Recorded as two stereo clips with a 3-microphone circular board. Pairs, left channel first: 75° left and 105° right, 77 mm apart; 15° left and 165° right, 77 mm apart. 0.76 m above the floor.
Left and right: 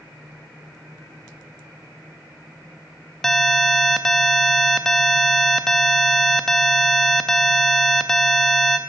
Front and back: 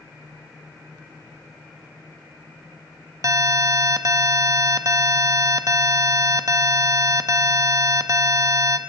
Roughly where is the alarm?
Behind.